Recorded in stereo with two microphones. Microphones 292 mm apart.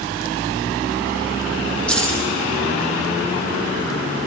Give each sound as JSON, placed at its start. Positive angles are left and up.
{"t": 1.9, "sound": "keys jangling", "side_deg": 5, "distance_m": 4.0}